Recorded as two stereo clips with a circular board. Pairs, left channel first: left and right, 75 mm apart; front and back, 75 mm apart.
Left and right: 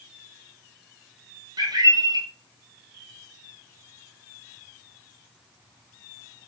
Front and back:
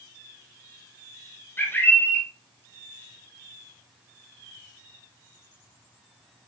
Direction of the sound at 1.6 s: 60° right.